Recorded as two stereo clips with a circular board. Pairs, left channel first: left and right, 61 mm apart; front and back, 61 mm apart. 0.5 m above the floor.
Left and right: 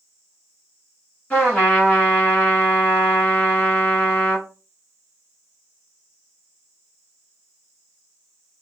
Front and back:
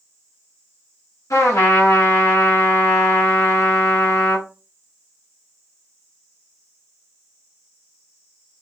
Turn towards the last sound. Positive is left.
turn(degrees=25)